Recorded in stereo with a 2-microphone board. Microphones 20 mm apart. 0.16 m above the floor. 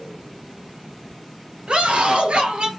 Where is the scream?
65° right (ahead or behind), 3 m; by 2.7 s 60° right (ahead or behind), 3 m.